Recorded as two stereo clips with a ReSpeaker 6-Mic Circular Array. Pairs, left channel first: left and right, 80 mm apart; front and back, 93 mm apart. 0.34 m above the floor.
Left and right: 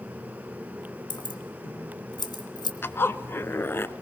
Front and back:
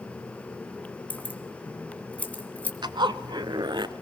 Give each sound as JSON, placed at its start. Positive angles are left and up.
{"t": 1.1, "sound": "keys jangling", "azimuth_deg": 70, "distance_m": 2.0}
{"t": 2.8, "sound": "a zipper", "azimuth_deg": 145, "distance_m": 0.6}